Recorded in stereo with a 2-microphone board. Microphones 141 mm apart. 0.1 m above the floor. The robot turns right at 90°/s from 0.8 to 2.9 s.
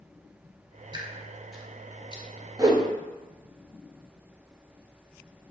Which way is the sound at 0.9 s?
35° right (ahead or behind).